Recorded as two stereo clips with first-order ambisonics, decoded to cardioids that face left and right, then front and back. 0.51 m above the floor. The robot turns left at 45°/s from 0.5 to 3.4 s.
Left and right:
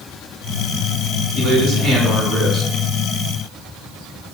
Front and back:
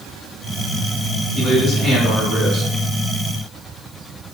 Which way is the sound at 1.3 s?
105° right.